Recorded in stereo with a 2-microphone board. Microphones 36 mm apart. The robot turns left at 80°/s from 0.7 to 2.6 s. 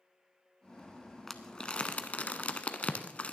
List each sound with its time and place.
1.3 s crumpling: 10° left (ahead or behind), 0.8 m; by 3.3 s 35° left (ahead or behind), 0.8 m